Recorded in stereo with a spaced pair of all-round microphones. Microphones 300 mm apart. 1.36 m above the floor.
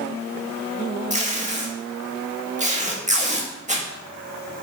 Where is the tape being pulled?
25° right (ahead or behind), 1.7 m.